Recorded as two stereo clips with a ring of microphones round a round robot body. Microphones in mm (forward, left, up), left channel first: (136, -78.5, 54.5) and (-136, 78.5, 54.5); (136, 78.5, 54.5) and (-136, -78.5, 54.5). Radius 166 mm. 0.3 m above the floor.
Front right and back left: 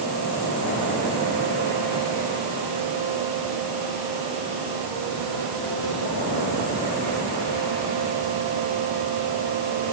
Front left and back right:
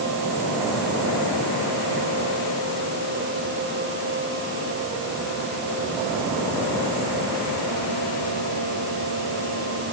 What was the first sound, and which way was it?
Only background noise.